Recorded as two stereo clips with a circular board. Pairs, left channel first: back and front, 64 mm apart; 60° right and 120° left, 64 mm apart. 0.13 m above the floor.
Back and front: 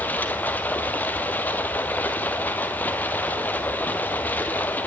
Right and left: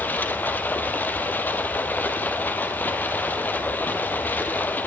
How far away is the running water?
About 1.4 m.